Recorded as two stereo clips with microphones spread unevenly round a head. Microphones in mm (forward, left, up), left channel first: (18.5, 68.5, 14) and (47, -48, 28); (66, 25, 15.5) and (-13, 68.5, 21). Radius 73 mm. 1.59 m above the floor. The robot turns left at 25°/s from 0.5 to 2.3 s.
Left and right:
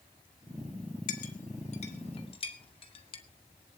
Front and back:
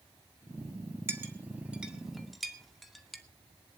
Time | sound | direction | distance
1.1 | a clink | 90° left | 2 m